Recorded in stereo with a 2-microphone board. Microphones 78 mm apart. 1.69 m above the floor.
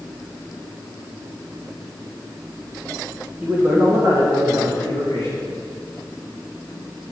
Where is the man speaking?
20° right (ahead or behind), 2 m; by 5.5 s 80° right, 2 m.